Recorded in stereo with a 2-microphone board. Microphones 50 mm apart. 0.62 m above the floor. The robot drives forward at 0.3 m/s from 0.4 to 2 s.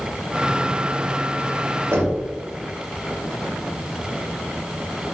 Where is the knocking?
55° right (ahead or behind), 1.5 m.